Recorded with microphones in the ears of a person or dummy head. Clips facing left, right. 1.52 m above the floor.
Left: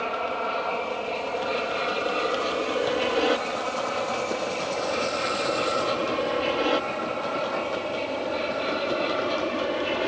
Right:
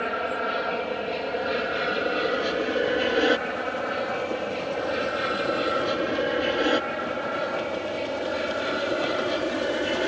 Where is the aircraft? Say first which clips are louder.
Right 1 dB; 15° right (ahead or behind); by 10.1 s 10° right (ahead or behind).